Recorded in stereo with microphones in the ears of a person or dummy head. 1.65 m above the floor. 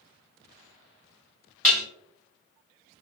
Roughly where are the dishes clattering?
Centre.